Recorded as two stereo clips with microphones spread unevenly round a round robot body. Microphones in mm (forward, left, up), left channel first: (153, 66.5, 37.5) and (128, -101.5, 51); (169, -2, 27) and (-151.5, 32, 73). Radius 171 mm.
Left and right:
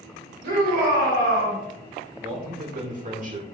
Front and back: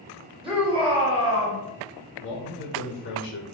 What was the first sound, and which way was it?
A shout, 110° right.